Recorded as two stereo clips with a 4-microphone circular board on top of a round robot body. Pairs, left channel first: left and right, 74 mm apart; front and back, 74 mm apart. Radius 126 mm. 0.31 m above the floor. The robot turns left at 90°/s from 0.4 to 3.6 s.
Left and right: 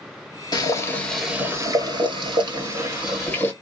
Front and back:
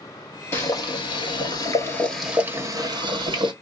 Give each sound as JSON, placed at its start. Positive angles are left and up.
{"t": 0.5, "sound": "boiling", "azimuth_deg": 60, "distance_m": 1.3}